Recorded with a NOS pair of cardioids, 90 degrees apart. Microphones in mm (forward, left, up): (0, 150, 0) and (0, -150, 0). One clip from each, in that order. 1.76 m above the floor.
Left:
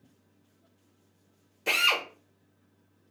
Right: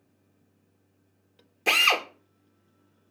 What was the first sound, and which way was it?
A drill, 30° right.